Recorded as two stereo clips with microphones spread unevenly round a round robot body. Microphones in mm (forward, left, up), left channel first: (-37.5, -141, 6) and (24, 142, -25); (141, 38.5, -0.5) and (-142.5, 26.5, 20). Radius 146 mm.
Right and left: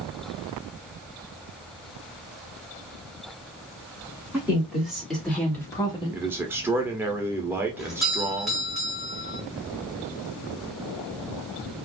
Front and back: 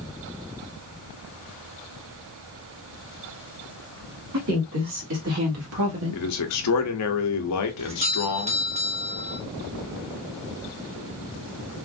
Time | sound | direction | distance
4.3 | a woman speaking | 160° left | 2.5 m
6.1 | a man speaking | straight ahead | 0.9 m
7.8 | a doorbell | 150° left | 1.3 m